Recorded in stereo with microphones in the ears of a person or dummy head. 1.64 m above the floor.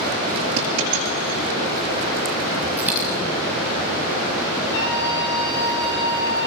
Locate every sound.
0.6 s a dropped coin: 60° right (ahead or behind), 7 m
2.8 s a dropped coin: 5° right (ahead or behind), 1.8 m
4.7 s a scream: 70° left (ahead or behind), 6 m